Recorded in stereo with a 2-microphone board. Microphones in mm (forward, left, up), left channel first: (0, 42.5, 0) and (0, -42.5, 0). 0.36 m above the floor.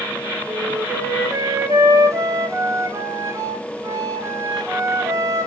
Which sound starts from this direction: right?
A flute, at 0.5 s.